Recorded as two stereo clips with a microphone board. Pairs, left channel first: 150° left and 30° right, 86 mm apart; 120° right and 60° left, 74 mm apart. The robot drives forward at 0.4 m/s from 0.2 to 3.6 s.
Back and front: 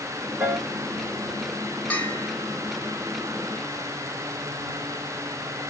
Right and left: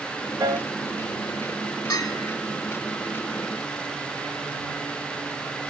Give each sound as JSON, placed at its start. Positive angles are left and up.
{"t": 0.4, "sound": "a piano", "azimuth_deg": 35, "distance_m": 3.0}
{"t": 1.9, "sound": "a bell", "azimuth_deg": -140, "distance_m": 1.7}